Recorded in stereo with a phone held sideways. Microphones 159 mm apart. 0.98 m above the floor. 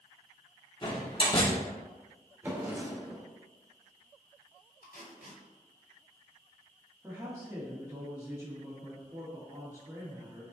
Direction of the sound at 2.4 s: 15° right (ahead or behind).